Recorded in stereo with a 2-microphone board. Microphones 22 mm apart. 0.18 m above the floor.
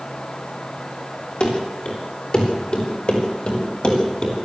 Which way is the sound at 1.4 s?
60° left (ahead or behind).